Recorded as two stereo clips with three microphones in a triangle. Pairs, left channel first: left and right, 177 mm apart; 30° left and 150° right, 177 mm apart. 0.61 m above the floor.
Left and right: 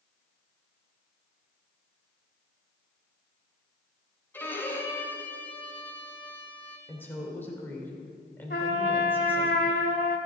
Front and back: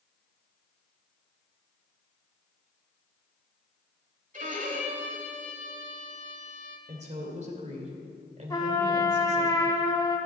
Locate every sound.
4.3 s a violin: 170° left, 1.2 m
6.9 s a woman speaking: 170° left, 2.5 m
8.5 s a trumpet: 95° left, 1.1 m